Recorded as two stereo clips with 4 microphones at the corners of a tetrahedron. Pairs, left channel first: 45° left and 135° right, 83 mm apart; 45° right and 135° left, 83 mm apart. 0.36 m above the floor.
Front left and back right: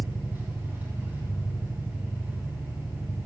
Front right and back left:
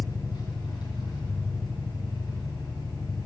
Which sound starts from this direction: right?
An engine running, at 0.0 s.